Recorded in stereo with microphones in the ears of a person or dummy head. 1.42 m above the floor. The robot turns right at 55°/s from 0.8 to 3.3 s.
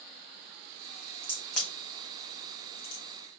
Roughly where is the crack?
Centre.